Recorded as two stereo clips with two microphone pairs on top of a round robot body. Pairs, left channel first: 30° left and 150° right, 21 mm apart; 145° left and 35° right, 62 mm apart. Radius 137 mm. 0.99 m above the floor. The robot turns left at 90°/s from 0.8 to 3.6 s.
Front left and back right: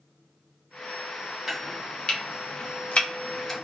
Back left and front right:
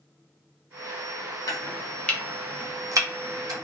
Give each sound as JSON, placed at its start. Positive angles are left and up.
{"t": 1.5, "sound": "chopping", "azimuth_deg": 135, "distance_m": 1.1}